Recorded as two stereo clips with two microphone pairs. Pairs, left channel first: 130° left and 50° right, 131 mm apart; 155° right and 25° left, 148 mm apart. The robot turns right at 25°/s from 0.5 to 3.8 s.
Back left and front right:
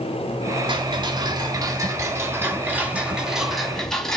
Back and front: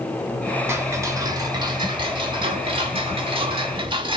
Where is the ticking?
30° right, 0.9 m; by 4.2 s 50° left, 0.9 m.